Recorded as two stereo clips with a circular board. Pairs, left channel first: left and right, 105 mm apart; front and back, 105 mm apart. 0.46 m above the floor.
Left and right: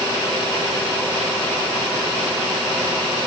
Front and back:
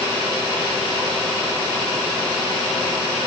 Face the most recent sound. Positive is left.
No sound to turn to.